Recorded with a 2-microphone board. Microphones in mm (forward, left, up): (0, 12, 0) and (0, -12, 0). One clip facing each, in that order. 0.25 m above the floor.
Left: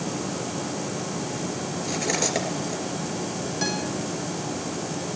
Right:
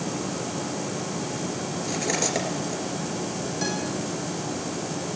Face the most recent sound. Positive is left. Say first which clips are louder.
# left 2 dB
turn(degrees=20)  # may be behind; listen again after turning